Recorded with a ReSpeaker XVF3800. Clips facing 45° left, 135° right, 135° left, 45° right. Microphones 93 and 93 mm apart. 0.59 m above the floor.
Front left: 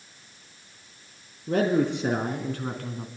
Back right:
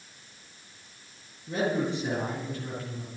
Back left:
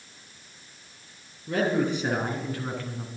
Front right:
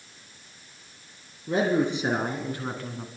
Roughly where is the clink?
No clink in this recording.